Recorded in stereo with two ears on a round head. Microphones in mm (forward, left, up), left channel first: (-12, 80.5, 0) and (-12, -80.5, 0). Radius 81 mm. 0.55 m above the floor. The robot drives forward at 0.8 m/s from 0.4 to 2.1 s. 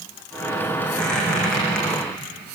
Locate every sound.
0.9 s a squeak: 5° left (ahead or behind), 6.5 m